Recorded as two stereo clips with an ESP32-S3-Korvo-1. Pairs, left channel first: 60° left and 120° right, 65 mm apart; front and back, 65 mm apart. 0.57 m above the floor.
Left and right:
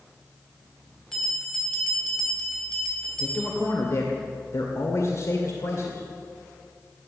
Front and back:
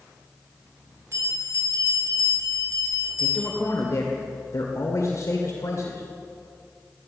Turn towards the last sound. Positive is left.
turn(degrees=30)